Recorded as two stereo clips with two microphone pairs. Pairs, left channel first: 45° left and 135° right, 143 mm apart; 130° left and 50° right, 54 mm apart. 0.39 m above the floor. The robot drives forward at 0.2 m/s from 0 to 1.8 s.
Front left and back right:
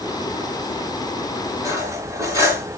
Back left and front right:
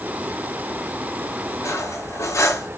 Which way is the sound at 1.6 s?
160° left.